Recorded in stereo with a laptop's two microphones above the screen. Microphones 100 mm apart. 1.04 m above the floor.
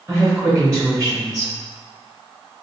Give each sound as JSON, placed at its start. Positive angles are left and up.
{"t": 0.1, "sound": "a woman speaking", "side_deg": -15, "distance_m": 1.1}